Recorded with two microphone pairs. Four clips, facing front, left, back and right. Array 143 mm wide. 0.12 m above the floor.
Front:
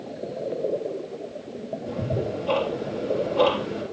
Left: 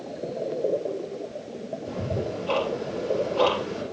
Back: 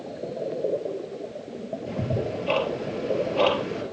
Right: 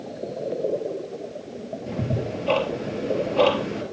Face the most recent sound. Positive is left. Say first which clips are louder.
# right 2 dB, front 1 dB
turn(degrees=-120)